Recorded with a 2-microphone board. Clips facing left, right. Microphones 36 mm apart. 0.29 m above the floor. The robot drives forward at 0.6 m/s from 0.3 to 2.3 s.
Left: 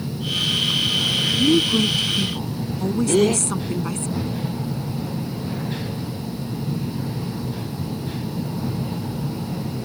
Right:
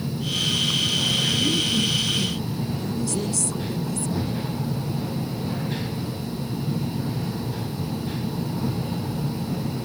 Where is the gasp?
80° left.